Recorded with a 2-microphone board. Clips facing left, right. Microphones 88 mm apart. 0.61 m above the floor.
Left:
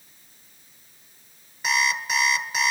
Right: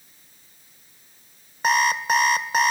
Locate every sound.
1.6 s an alarm clock: 50° right (ahead or behind), 1.5 m